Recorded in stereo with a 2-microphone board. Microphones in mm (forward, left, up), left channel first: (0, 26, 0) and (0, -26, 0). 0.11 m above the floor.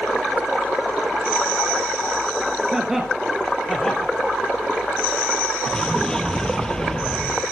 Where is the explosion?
15° left (ahead or behind), 1.4 m.